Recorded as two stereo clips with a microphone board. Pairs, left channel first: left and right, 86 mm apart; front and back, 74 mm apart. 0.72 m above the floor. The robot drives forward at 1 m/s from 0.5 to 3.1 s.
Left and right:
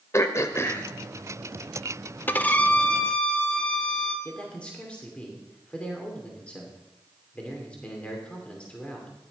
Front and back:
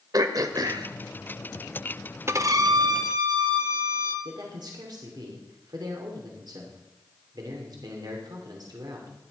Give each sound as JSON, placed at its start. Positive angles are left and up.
{"t": 0.1, "sound": "throat clearing", "azimuth_deg": 145, "distance_m": 1.1}
{"t": 2.3, "sound": "a violin", "azimuth_deg": 145, "distance_m": 0.7}
{"t": 4.2, "sound": "a man speaking", "azimuth_deg": 165, "distance_m": 2.5}